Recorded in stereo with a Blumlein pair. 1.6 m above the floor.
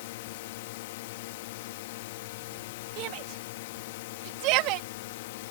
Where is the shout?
40° right.